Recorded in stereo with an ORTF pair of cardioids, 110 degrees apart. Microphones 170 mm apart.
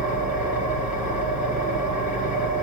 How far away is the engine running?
About 9.5 m.